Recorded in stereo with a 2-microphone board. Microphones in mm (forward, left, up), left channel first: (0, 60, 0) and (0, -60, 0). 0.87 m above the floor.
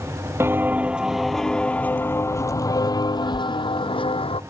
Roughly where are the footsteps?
Right.